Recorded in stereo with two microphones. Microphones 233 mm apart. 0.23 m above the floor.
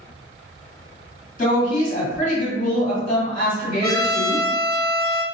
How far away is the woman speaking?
About 1.8 m.